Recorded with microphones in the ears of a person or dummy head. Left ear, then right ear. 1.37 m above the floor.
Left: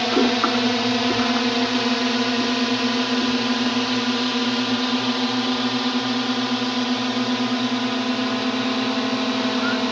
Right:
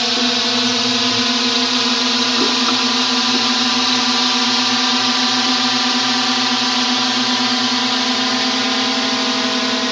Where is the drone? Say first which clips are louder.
Right 3 dB; 20° right (ahead or behind); by 9.9 s 60° right (ahead or behind).